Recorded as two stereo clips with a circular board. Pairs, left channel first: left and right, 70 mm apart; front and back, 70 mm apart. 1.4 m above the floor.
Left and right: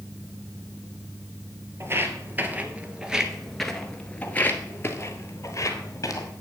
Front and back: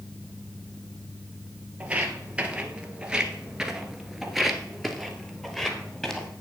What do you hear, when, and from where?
1.8 s footsteps: 115° right, 1.8 m; by 6.3 s 80° left, 2 m